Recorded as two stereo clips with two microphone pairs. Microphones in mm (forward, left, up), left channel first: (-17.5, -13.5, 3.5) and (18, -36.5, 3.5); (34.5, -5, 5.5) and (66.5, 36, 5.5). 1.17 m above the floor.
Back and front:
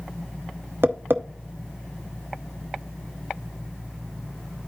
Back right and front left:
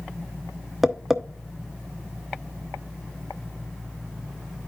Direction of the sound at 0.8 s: 25° right.